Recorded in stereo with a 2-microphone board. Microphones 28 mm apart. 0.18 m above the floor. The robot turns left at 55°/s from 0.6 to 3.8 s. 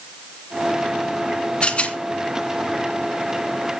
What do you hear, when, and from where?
1.6 s a rattle: 40° left (ahead or behind), 2.5 m; by 2.0 s 50° left (ahead or behind), 2.5 m